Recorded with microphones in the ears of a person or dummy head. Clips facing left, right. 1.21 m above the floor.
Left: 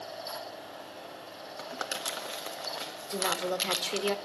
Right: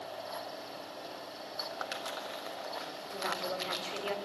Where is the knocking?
No knocking in this recording.